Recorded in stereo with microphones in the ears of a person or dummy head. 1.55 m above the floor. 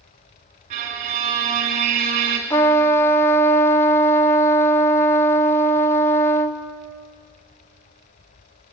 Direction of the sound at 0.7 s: 30° right (ahead or behind).